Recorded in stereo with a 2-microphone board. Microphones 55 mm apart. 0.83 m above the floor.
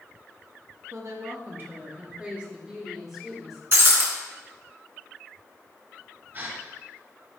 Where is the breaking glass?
45° right (ahead or behind), 1.7 m.